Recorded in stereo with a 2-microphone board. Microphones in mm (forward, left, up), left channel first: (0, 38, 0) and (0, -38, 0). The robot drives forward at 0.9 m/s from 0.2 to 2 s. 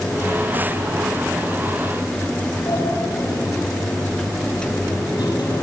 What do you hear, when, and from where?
2.7 s a sliding door: 70° left (ahead or behind), 8 m